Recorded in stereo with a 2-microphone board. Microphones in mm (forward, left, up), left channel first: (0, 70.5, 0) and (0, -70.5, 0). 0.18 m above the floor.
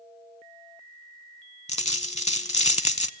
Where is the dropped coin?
50° left (ahead or behind), 0.5 m.